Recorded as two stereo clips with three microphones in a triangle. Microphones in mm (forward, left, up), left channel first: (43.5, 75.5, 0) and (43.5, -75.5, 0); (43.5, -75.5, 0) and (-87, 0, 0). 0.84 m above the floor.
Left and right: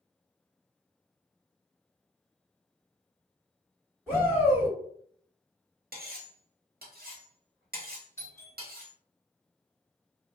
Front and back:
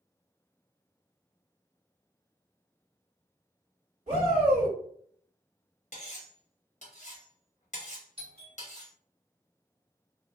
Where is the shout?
170° right, 1.9 m.